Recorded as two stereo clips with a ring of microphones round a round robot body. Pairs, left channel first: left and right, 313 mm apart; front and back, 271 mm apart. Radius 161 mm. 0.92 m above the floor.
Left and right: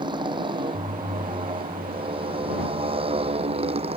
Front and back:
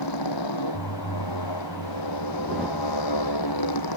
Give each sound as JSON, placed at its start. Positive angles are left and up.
{"t": 0.0, "sound": "a motorcycle", "azimuth_deg": -15}